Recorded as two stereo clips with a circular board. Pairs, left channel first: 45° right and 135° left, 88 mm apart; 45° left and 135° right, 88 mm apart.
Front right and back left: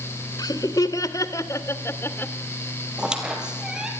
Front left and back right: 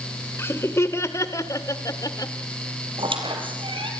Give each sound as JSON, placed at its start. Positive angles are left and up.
{"t": 0.4, "sound": "laughter", "azimuth_deg": -10, "distance_m": 2.5}
{"t": 3.0, "sound": "a squeak", "azimuth_deg": -145, "distance_m": 3.5}